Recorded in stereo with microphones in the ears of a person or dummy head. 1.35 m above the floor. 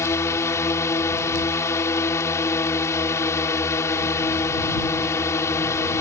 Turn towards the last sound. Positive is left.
turn(degrees=15)  # may be behind; listen again after turning